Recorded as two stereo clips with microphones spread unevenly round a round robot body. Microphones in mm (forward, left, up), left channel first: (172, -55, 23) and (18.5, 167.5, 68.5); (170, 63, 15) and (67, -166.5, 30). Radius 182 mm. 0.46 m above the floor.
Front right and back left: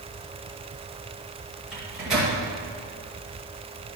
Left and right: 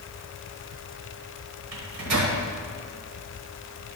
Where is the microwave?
145° right, 1.3 m.